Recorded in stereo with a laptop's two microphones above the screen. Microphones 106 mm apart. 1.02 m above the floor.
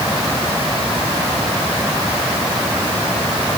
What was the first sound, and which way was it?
Only background noise.